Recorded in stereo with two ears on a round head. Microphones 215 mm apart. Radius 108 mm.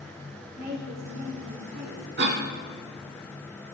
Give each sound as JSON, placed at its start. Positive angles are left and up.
{"t": 0.6, "sound": "a woman speaking", "side_deg": -40, "distance_m": 2.5}
{"t": 2.2, "sound": "a cough", "side_deg": -45, "distance_m": 2.0}